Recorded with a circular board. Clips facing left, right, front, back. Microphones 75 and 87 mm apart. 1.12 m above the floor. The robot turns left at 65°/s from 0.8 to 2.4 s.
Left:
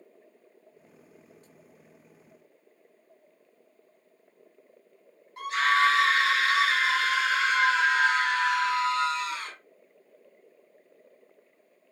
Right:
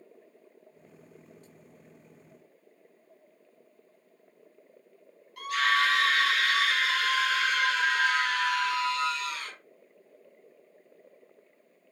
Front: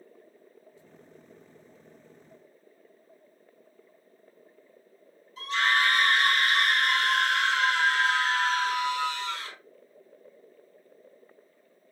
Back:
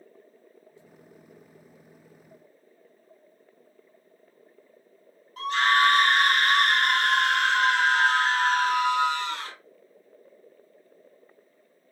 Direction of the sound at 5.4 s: 150° left.